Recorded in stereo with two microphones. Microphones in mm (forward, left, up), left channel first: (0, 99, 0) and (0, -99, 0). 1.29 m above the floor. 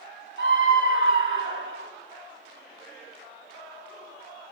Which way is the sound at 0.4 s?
75° right (ahead or behind).